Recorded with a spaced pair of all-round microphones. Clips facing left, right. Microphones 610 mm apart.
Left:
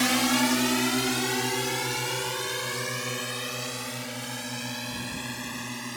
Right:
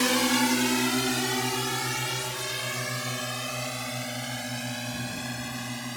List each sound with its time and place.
0.0 s a drone: 10° left (ahead or behind); by 6.0 s 15° right (ahead or behind)